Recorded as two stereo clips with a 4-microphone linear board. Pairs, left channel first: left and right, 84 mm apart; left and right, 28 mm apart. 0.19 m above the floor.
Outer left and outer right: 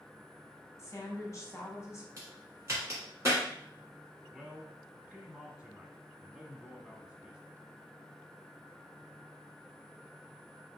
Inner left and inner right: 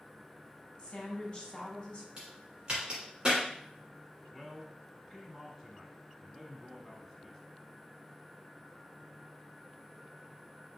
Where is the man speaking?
5° right (ahead or behind), 1.1 m.